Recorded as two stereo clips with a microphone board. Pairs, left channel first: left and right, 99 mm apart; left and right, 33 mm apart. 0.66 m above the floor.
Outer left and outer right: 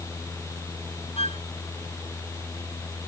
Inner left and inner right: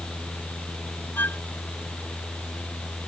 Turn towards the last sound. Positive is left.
turn(degrees=85)